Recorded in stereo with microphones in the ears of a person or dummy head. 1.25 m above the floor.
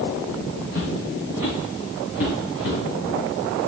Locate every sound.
0.7 s footsteps: 70° left (ahead or behind), 4 m